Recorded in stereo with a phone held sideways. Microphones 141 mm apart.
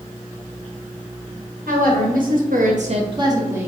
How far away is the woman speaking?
About 1.4 m.